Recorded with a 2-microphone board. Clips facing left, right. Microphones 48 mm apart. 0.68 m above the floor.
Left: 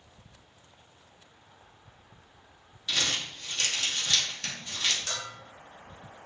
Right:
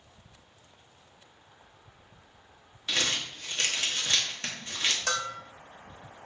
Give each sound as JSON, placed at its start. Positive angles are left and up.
{"t": 2.9, "sound": "crumpling", "side_deg": -30, "distance_m": 1.1}
{"t": 5.1, "sound": "a bell", "side_deg": -65, "distance_m": 0.7}